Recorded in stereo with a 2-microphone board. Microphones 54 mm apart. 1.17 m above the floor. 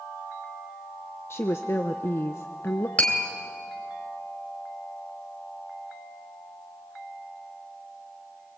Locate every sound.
1.3 s a woman speaking: 55° left (ahead or behind), 0.8 m
3.0 s tapping: 25° left (ahead or behind), 2.5 m